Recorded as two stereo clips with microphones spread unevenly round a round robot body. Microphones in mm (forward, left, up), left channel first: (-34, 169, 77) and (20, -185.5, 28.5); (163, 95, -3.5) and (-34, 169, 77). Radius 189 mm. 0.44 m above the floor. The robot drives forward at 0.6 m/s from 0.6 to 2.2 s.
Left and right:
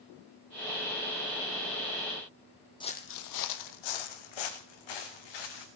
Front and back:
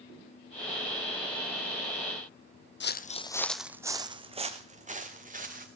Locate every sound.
2.8 s footsteps: 25° left, 0.9 m; by 5.7 s 115° left, 3 m